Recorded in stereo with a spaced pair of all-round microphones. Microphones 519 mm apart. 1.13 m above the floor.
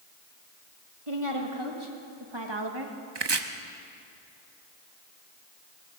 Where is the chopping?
55° right (ahead or behind), 0.8 m.